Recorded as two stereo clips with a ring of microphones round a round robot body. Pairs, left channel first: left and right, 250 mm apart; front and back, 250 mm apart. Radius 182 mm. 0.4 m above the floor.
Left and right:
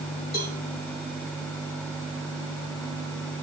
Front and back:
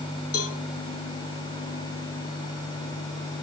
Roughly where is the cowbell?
Ahead left.